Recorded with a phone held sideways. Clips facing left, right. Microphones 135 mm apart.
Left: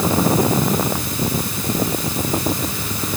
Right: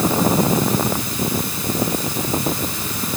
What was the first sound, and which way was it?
Only background noise.